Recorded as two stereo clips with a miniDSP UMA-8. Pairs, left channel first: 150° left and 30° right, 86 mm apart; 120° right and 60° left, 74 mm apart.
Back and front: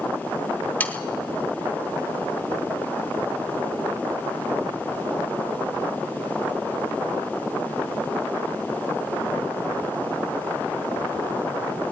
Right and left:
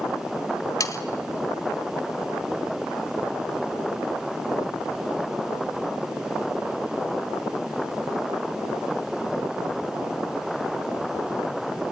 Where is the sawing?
145° right, 1.6 m.